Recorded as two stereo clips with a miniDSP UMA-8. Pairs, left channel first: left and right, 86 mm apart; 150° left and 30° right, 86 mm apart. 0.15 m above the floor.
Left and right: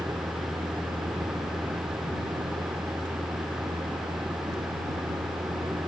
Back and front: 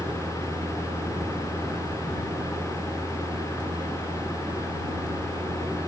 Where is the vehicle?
55° right.